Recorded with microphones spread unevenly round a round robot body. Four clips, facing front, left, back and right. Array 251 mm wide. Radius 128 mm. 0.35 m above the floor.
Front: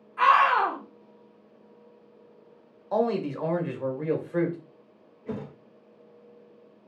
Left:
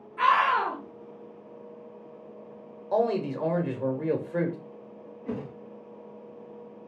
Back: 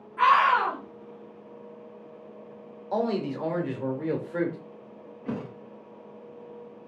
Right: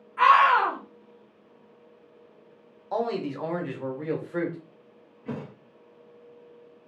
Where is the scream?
65° right, 1.3 m.